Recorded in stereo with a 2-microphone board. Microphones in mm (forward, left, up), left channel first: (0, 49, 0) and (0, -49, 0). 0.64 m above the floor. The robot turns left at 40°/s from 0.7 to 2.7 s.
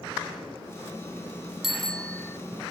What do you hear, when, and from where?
1.6 s a bicycle bell: 5° right (ahead or behind); by 2.4 s 25° left (ahead or behind)